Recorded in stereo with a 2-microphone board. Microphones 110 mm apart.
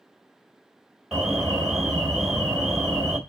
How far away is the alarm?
About 2 m.